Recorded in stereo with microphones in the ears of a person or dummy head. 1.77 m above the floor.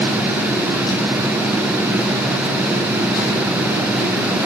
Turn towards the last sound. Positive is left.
No sound to turn to.